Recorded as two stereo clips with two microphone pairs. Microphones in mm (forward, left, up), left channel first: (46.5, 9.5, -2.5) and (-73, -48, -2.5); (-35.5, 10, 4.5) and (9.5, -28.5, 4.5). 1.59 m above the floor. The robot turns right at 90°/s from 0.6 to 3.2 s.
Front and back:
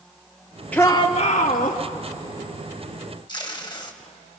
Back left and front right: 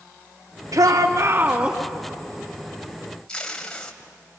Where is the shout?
55° right, 2.5 m; by 1.8 s 40° left, 2.5 m.